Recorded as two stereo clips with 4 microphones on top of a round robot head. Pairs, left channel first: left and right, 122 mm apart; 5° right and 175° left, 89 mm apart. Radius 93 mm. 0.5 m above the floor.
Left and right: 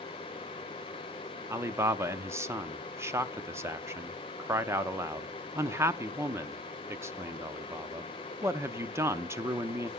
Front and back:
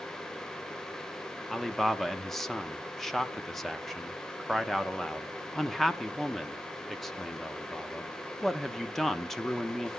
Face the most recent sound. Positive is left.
turn(degrees=-90)